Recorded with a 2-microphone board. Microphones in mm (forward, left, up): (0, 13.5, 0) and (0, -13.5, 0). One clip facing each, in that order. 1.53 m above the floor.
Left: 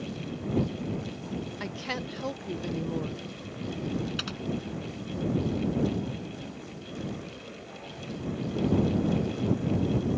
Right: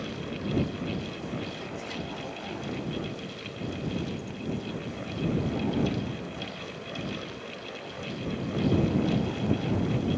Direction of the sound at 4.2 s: 70° left (ahead or behind).